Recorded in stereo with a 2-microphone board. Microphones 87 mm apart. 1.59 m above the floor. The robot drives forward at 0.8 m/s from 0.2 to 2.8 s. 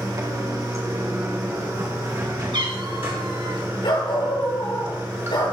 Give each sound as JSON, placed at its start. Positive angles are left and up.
{"t": 0.0, "sound": "running water", "side_deg": -45, "distance_m": 3.0}
{"t": 2.5, "sound": "a cat meowing", "side_deg": -65, "distance_m": 3.0}
{"t": 3.8, "sound": "a dog barking", "side_deg": 75, "distance_m": 6.5}